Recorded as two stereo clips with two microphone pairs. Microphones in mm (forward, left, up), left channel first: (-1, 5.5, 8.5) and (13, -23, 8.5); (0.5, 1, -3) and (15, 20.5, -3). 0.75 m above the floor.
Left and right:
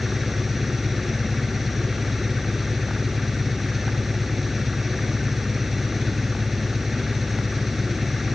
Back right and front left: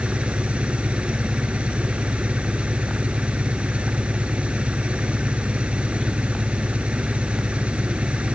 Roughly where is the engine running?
Ahead.